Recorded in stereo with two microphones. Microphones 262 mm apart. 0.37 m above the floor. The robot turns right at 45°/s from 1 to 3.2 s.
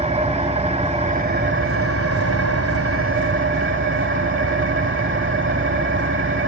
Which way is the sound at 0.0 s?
155° right.